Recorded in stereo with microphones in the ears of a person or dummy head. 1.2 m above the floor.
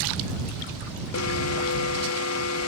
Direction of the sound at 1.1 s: 75° left (ahead or behind).